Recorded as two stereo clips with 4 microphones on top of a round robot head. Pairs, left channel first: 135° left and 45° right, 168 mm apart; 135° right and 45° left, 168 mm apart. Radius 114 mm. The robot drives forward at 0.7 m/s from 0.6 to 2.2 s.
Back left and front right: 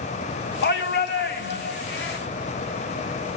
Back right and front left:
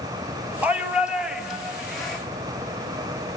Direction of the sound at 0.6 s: 125° left.